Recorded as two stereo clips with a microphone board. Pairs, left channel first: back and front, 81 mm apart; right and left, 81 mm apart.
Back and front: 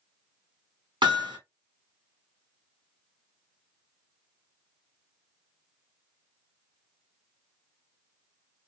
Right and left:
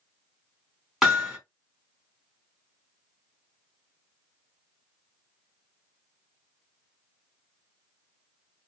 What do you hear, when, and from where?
1.0 s hammering: straight ahead, 3 m